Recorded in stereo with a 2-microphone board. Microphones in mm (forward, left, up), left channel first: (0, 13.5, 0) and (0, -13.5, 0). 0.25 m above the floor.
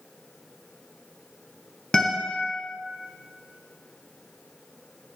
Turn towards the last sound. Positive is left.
turn(degrees=25)  # may be behind; listen again after turning